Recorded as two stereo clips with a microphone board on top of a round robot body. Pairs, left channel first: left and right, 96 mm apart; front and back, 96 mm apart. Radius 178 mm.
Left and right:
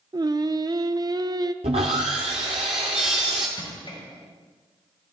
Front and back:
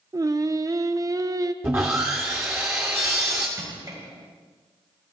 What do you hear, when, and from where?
0.1 s singing: 130° right, 0.6 m
1.6 s sawing: 110° right, 0.6 m
3.6 s crushing: 125° left, 5 m